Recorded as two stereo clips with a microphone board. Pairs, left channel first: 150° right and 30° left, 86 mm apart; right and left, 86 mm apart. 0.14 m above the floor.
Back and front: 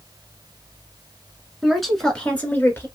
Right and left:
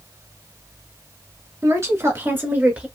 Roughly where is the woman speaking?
Left.